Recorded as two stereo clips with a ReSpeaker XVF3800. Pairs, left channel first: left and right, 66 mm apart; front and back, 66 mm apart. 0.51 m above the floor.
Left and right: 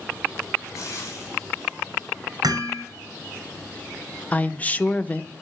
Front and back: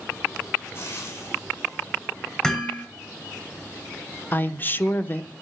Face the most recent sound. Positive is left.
turn(degrees=35)